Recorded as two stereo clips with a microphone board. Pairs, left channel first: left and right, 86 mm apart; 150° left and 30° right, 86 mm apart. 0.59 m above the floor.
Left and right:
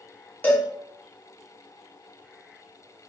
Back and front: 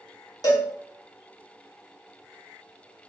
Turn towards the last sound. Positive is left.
turn(degrees=150)